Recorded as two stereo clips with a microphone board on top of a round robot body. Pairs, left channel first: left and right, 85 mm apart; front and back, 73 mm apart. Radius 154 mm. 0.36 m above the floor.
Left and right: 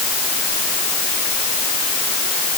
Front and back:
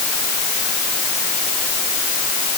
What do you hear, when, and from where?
Only background noise.